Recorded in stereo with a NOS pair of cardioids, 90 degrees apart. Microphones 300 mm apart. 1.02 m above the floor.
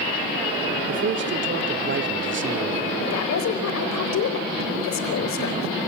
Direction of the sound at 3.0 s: 60° left.